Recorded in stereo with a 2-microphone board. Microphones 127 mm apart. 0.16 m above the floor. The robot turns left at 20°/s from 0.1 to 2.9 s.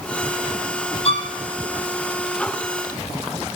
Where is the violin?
50° left (ahead or behind), 2.5 m; by 1.3 s 45° left (ahead or behind), 2.5 m.